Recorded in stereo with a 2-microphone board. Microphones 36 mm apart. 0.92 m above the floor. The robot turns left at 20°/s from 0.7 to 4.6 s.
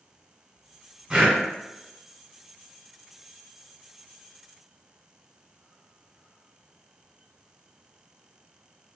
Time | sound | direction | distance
1.1 | breathing | 15° right (ahead or behind) | 1.3 m